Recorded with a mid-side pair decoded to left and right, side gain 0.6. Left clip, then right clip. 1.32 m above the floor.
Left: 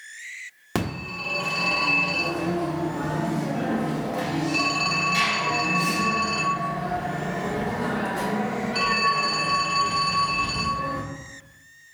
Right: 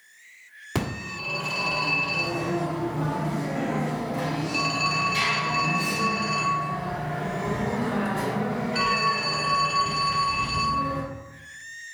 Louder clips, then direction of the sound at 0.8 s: Left 1 dB; 25° left.